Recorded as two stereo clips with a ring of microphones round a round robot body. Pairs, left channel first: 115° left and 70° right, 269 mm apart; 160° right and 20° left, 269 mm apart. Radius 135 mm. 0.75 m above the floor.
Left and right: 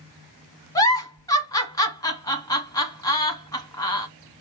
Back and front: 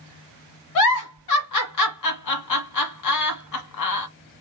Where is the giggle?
170° right, 1.2 m.